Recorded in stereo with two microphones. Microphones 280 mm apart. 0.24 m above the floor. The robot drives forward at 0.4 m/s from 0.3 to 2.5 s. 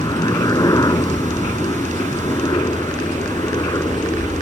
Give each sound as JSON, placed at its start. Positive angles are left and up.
{"t": 0.0, "sound": "a helicopter", "side_deg": 15}